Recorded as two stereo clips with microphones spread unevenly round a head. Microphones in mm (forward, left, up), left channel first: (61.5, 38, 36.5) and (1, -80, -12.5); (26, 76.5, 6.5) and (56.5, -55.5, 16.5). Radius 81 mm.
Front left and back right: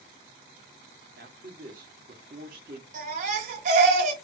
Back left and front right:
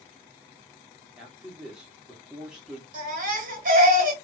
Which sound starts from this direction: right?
A baby crying, at 2.9 s.